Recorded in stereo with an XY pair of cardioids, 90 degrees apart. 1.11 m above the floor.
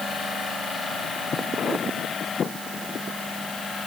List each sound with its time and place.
Only background noise.